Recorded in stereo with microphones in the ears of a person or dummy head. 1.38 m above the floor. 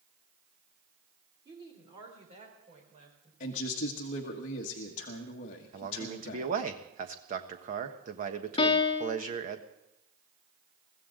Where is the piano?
30° left (ahead or behind), 0.8 m.